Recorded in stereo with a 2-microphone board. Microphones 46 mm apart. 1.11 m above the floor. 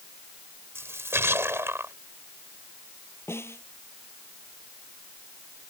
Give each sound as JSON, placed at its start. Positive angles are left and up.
{"t": 0.8, "sound": "a splash", "side_deg": -70}
{"t": 3.3, "sound": "a snare drum", "side_deg": 70}